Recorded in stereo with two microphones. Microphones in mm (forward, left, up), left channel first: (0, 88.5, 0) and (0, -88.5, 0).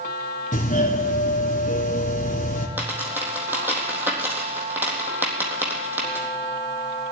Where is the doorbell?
45° left (ahead or behind), 2.5 m.